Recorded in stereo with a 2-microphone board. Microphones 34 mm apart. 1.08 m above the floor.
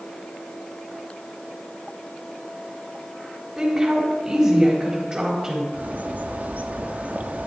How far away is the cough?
No cough in this recording.